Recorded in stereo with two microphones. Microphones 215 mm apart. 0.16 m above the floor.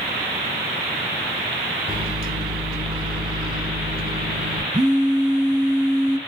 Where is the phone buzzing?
20° right (ahead or behind), 0.5 m.